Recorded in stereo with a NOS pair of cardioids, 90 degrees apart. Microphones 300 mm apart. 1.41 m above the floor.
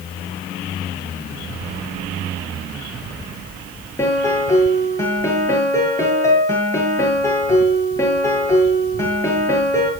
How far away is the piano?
About 7.5 m.